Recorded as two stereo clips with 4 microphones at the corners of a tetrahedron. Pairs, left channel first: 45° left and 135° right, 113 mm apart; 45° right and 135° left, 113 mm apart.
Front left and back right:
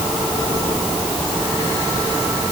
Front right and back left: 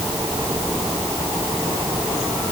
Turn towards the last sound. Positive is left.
No sound to turn to.